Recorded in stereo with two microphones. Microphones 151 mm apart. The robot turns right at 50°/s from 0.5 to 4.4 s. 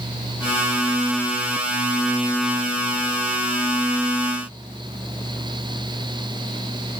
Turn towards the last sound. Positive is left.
No sound to turn to.